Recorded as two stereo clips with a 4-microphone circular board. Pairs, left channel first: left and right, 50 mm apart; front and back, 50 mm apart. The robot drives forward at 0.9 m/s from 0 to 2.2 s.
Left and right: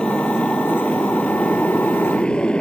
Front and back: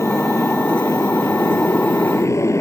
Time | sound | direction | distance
0.0 | a motorcycle | 15° left | ?